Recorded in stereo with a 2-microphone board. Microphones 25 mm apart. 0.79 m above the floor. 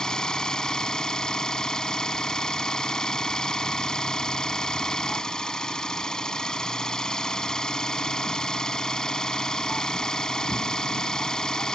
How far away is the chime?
No chime in this recording.